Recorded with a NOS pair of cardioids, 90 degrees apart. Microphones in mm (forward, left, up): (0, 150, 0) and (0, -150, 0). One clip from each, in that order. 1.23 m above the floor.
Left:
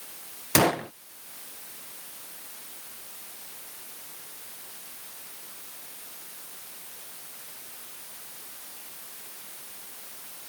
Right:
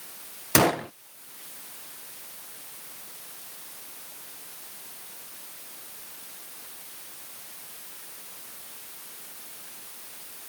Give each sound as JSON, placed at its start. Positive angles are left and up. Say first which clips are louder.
{"t": 0.6, "sound": "a gunshot", "louder": "right 1 dB", "azimuth_deg": -10}